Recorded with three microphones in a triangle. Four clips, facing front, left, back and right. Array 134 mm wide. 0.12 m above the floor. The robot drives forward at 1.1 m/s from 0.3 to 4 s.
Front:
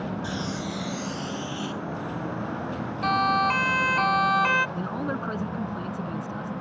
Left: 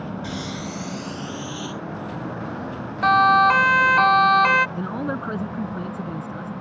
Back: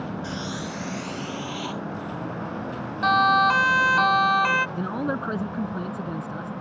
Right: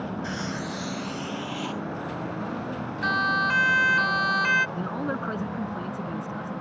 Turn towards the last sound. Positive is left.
turn(degrees=150)